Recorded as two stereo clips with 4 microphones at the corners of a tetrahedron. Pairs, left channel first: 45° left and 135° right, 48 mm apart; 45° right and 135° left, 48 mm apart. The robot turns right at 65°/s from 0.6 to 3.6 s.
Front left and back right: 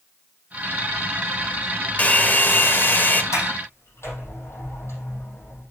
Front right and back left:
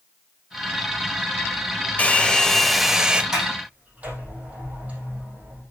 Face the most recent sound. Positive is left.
turn(degrees=80)